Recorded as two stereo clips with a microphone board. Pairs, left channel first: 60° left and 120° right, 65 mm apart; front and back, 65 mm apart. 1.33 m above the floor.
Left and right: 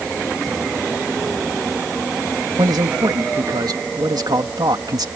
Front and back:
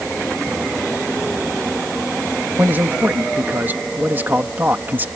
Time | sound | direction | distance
2.6 | a man speaking | 120° right | ?